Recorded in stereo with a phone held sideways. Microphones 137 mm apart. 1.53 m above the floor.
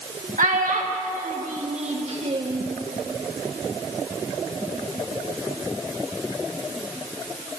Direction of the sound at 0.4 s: 75° right (ahead or behind).